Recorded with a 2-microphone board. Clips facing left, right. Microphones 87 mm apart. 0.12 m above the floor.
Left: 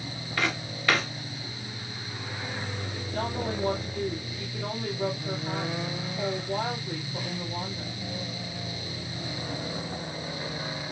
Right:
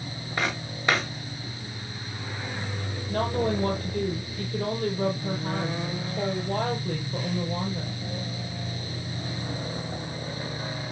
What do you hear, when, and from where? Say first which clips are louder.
0.4 s footsteps: even; 20° right (ahead or behind), 4 m
3.1 s a woman speaking: right 6 dB; 70° right (ahead or behind), 3.5 m